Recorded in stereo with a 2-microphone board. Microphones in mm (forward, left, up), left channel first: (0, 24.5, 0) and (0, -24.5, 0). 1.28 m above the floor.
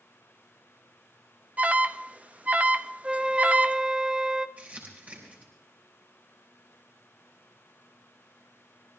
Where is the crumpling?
35° right (ahead or behind), 5 m.